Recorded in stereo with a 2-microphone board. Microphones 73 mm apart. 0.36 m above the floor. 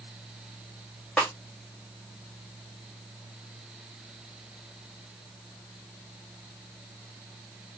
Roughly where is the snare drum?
Centre.